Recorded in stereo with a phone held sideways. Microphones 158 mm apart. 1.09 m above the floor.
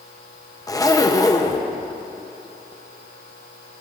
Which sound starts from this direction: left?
A zipper, at 0.7 s.